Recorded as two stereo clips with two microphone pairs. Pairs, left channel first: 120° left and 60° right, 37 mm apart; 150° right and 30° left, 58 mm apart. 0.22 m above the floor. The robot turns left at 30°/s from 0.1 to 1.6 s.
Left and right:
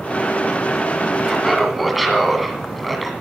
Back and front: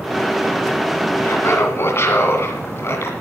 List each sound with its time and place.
1.2 s laughter: 140° right, 1.8 m; by 3.1 s 150° right, 1.8 m